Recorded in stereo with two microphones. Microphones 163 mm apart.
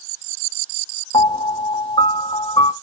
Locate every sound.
1.1 s a piano: 35° left (ahead or behind), 0.6 m